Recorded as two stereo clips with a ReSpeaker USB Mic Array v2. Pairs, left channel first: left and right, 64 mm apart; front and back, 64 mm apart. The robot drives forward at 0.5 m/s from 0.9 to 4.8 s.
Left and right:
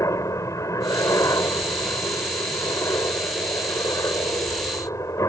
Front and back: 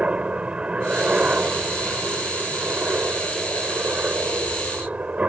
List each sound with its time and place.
0.0 s a helicopter: 110° left